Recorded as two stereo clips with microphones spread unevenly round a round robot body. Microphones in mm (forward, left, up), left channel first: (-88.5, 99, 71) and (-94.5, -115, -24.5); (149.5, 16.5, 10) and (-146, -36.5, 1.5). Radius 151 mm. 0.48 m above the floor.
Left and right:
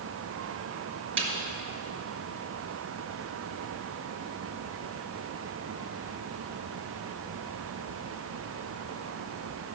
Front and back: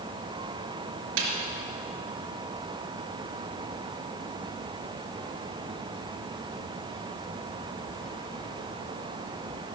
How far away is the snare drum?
About 3.5 m.